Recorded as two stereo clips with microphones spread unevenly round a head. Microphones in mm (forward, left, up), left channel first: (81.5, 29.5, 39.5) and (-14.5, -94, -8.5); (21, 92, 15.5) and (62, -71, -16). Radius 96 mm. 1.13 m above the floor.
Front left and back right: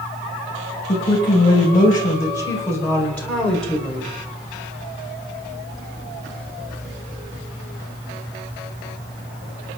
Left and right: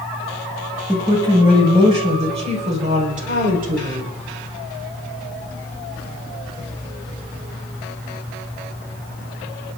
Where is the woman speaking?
10° right, 5 m; by 4.1 s 40° right, 4 m.